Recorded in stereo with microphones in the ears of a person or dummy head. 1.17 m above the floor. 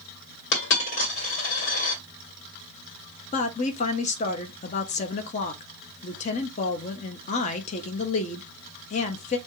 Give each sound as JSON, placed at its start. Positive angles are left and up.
{"t": 0.5, "sound": "a dropped coin", "side_deg": 65, "distance_m": 1.7}
{"t": 3.3, "sound": "a woman speaking", "side_deg": 40, "distance_m": 0.9}